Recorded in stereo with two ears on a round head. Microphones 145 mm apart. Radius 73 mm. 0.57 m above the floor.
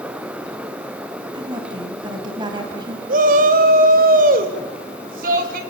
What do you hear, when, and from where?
1.3 s a woman speaking: 30° right (ahead or behind), 3.5 m
3.1 s a shout: 60° right (ahead or behind), 3 m